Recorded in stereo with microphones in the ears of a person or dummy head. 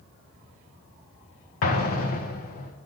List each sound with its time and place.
1.6 s an explosion: 40° left (ahead or behind), 1.1 m